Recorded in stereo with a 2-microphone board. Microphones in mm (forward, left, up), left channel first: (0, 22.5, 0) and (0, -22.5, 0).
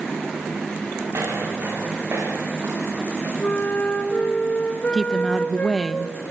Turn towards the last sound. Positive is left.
turn(degrees=-5)  # may be behind; listen again after turning